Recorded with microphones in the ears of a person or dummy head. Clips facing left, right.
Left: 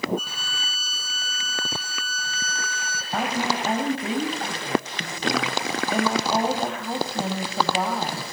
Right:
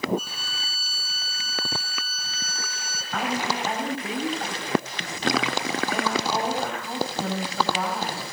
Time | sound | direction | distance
0.2 | a violin | 75° left (ahead or behind) | 4 m
3.1 | a woman speaking | 25° left (ahead or behind) | 6 m